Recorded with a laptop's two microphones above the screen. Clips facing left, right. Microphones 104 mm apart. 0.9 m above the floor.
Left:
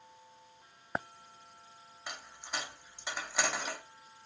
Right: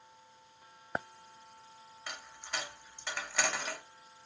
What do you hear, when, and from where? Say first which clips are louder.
2.1 s a dropped coin: even; 10° left (ahead or behind), 0.5 m